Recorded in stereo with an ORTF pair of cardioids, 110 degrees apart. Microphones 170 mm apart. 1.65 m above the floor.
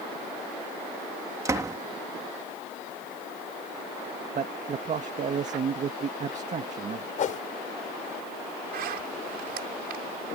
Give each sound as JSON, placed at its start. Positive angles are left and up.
{"t": 1.4, "sound": "a door slam", "azimuth_deg": -20}
{"t": 4.3, "sound": "a man speaking", "azimuth_deg": -45}
{"t": 7.2, "sound": "a whoosh", "azimuth_deg": 50}
{"t": 8.7, "sound": "a zipper", "azimuth_deg": -65}